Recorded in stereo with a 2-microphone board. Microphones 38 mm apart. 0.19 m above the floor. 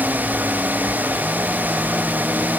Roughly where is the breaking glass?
No breaking glass in this recording.